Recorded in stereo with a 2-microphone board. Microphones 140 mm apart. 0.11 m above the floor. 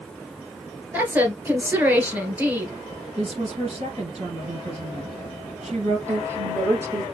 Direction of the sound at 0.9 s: 10° right (ahead or behind).